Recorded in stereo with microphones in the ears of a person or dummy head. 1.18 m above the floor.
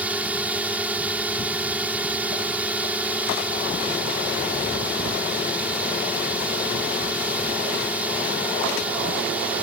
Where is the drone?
5° right (ahead or behind).